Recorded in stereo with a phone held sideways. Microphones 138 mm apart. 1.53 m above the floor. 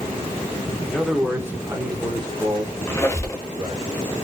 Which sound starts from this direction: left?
A squeak, at 2.9 s.